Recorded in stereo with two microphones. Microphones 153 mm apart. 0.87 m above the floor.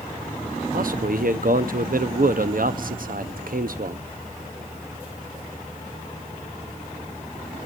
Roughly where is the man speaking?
Right.